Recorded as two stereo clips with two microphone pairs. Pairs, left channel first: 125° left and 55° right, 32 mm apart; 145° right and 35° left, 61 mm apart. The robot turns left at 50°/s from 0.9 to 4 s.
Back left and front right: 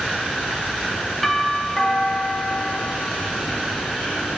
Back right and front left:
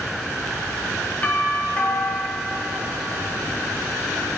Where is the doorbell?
150° right, 1.0 m; by 3.0 s 120° left, 1.0 m.